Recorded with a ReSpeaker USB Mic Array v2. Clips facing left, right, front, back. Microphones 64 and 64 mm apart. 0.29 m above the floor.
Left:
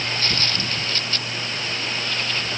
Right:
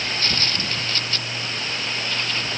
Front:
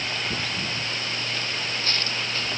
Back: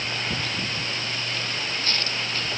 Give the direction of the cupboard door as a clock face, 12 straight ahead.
I don't hear a cupboard door.